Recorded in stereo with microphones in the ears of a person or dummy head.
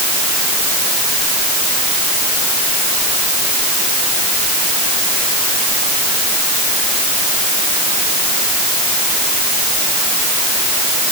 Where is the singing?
I don't hear singing.